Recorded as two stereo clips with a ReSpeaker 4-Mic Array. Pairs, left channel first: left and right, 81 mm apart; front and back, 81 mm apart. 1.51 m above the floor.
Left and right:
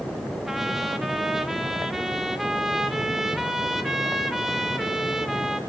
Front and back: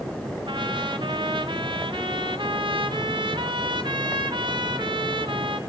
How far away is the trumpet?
About 2.0 m.